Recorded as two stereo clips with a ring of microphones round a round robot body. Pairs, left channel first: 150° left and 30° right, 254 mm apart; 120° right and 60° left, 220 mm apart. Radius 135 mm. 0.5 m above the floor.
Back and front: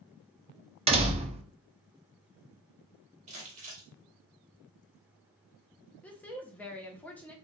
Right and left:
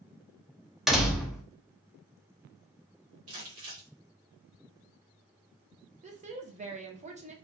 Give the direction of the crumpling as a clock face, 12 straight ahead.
11 o'clock.